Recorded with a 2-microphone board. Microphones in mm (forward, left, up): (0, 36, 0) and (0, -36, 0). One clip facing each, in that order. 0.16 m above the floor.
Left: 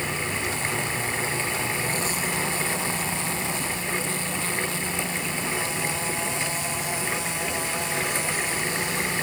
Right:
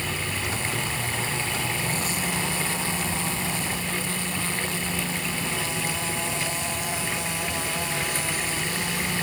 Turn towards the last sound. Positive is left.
No sound to turn to.